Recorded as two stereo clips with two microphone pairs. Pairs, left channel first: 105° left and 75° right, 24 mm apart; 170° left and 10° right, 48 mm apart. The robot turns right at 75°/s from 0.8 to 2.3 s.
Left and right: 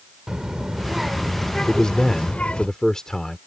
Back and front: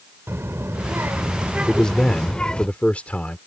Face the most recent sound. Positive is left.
turn(degrees=145)